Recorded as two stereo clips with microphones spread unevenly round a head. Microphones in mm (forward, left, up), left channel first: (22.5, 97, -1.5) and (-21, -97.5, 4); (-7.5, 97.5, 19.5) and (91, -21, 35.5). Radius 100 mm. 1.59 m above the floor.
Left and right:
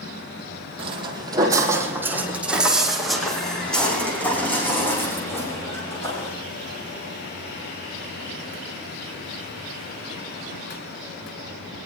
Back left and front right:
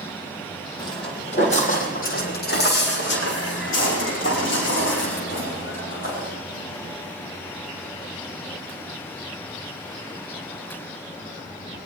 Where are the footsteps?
160° right, 2.5 m; by 6.3 s 155° left, 6.5 m.